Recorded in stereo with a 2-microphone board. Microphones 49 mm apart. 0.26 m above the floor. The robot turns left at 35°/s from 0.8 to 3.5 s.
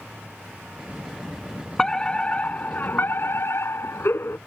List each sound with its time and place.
1.8 s a fire alarm: 165° left; by 4.4 s 110° left